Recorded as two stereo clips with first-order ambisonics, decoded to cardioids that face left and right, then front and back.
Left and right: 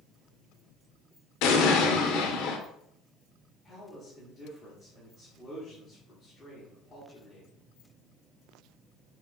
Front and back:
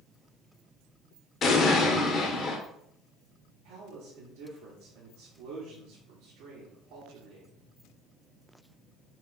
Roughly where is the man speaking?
Behind left.